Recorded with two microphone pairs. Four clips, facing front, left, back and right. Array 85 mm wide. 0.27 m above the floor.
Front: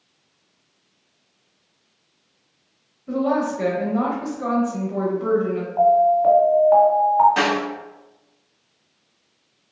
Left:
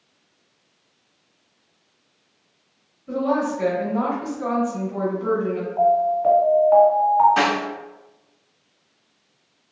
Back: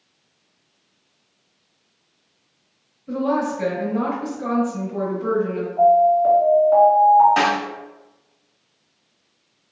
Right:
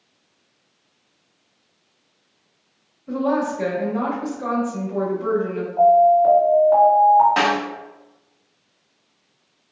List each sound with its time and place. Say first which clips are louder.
3.1 s a woman speaking: right 1 dB, even; 25° right, 1.0 m
5.8 s an alarm: right 6 dB, back 1 dB; 5° left, 1.7 m
7.4 s a snare drum: right 1 dB, back 1 dB; 105° right, 1.2 m